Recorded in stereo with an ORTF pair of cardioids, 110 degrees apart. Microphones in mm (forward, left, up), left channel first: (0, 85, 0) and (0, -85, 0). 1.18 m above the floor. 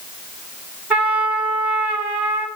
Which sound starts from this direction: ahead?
A trumpet, at 0.9 s.